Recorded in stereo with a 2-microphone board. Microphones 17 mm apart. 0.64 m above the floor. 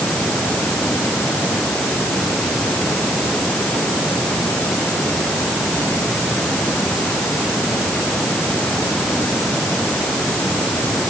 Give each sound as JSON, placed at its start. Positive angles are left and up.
{"t": 0.0, "sound": "running water", "side_deg": 50}